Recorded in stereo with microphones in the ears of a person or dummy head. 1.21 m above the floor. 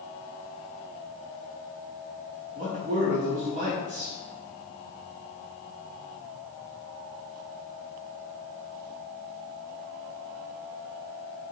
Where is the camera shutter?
I don't hear a camera shutter.